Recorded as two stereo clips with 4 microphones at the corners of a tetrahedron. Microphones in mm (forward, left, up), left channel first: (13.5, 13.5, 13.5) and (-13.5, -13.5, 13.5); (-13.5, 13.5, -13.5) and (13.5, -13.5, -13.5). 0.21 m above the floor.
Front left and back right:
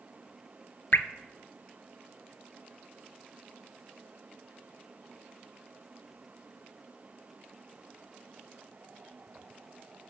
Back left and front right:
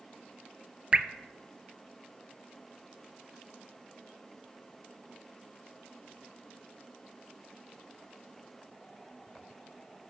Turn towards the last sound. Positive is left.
turn(degrees=20)